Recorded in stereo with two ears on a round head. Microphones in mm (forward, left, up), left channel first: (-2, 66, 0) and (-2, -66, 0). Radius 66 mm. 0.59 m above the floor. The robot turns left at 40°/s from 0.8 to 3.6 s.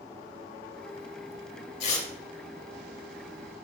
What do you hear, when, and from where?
1.8 s tearing paper: 45° left (ahead or behind), 0.9 m; by 2.1 s 50° left (ahead or behind), 0.9 m